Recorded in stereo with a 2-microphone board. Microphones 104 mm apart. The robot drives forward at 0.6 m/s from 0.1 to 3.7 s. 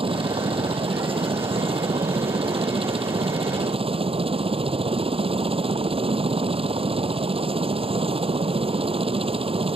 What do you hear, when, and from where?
0.0 s a helicopter: 60° right (ahead or behind)